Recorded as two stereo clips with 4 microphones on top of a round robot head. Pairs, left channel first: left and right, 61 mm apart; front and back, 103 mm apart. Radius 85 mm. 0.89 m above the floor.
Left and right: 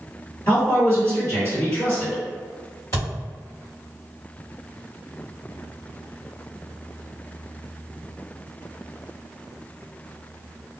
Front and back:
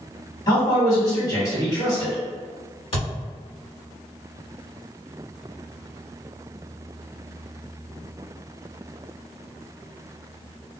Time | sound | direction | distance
0.5 | a man speaking | 50° left | 1.7 m
2.9 | a thud | 35° left | 1.5 m